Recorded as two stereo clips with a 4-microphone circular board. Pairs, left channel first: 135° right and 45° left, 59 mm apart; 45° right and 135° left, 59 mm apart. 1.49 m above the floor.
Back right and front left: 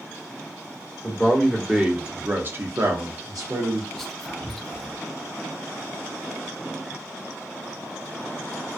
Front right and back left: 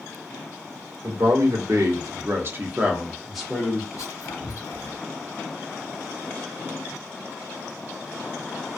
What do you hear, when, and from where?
1.0 s a man speaking: 140° left, 1.0 m; by 3.8 s 30° left, 0.8 m
3.9 s whispering: 50° right, 0.8 m